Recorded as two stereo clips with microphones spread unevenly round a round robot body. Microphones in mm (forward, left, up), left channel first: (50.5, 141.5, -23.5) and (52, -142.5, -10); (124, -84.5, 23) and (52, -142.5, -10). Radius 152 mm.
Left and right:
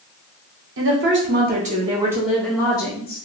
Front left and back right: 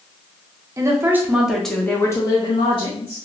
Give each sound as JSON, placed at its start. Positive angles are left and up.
{"t": 0.8, "sound": "a woman speaking", "azimuth_deg": -130, "distance_m": 0.9}